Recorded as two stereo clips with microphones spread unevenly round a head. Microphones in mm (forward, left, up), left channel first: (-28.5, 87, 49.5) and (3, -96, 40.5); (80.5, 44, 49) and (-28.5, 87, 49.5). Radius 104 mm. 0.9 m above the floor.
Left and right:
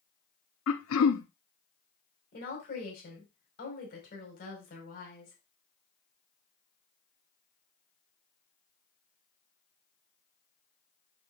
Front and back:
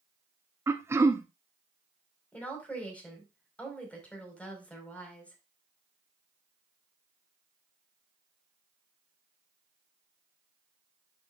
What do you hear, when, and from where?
0.7 s throat clearing: 90° left, 0.9 m
2.3 s a woman speaking: 55° left, 5 m